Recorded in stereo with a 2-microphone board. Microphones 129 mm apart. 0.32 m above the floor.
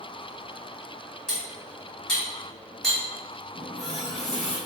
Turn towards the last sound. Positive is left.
turn(degrees=-5)  # may be behind; listen again after turning